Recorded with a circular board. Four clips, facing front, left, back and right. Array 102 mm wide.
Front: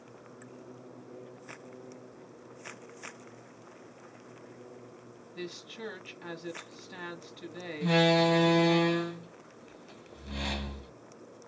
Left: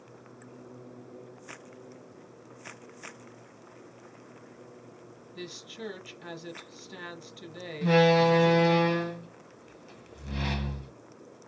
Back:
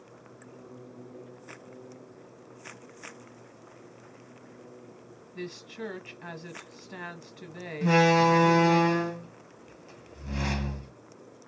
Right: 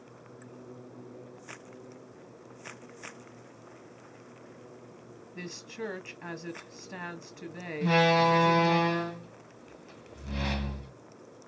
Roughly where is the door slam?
Behind.